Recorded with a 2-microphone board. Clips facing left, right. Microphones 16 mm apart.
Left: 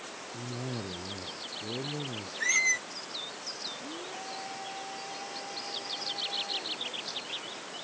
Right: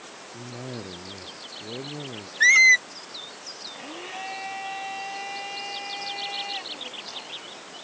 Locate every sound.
0.3 s a cough: 45° right (ahead or behind)
2.4 s a squeak: 70° right (ahead or behind)
3.7 s a blender: 80° right